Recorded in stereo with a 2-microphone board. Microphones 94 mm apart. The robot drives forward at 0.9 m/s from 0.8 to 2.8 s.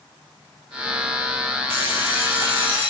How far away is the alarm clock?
About 3.5 m.